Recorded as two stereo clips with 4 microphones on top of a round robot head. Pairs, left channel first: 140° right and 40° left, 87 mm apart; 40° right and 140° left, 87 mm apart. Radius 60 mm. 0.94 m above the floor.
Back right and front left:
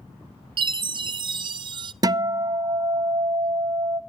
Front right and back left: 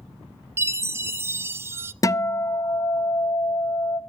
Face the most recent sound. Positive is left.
turn(degrees=5)